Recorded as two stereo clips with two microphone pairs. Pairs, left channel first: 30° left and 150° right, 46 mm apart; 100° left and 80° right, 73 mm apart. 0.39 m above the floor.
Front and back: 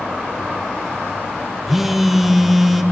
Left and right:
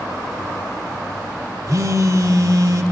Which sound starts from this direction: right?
A phone buzzing, at 1.7 s.